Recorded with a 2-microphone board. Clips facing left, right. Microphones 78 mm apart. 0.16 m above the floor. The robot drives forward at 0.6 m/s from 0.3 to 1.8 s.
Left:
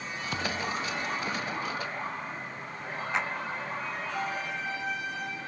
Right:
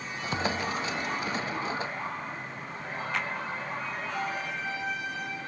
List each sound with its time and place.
0.3 s a thud: 10° right (ahead or behind)
3.1 s a clap: 20° left (ahead or behind)